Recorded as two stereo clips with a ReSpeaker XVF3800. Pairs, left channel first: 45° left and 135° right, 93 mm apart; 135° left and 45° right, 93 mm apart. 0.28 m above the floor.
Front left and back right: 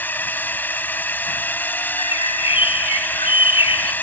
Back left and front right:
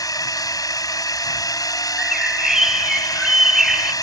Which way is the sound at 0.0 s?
110° left.